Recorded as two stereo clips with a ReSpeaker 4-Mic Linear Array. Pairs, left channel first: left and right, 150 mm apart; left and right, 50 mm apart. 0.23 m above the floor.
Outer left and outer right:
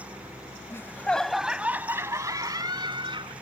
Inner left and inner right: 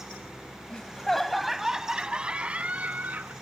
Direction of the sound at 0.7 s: 20° left (ahead or behind).